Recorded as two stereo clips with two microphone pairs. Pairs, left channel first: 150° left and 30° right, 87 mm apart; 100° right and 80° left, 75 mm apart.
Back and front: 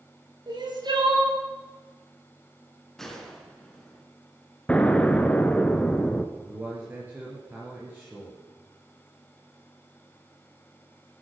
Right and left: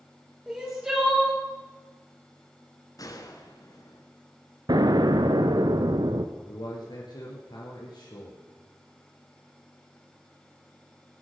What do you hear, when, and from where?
0.5 s crying: 5° left, 4.5 m
3.0 s a gunshot: 120° right, 1.9 m
4.7 s an explosion: 75° left, 0.9 m
6.3 s a man speaking: 95° right, 3.5 m